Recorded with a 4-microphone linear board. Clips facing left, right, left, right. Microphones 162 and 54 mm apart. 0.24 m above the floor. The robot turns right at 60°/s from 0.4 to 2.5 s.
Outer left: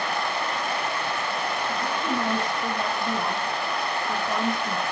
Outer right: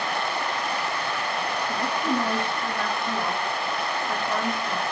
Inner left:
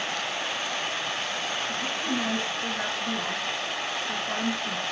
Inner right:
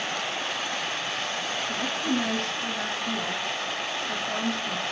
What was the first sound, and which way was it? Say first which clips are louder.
A woman speaking: outer right 4 dB, inner right 4 dB; 30° right.